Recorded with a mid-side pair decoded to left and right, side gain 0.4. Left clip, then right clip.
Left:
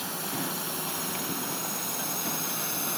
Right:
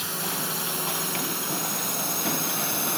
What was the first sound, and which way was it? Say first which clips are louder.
A drone: right 3 dB; 40° right.